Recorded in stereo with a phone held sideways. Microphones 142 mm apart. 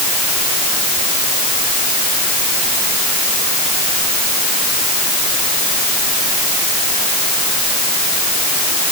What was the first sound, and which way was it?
Only background noise.